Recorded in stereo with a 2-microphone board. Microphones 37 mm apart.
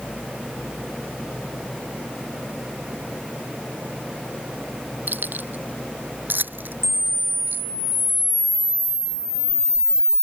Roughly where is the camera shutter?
Left.